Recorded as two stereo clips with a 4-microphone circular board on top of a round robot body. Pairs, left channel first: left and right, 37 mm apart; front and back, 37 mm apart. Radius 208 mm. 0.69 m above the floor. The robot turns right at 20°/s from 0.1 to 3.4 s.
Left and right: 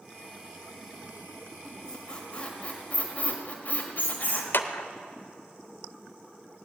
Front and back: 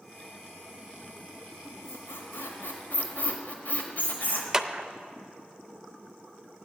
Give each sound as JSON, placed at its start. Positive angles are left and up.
{"t": 1.6, "sound": "a squeak", "azimuth_deg": 10, "distance_m": 1.4}
{"t": 4.5, "sound": "a clap", "azimuth_deg": 100, "distance_m": 0.9}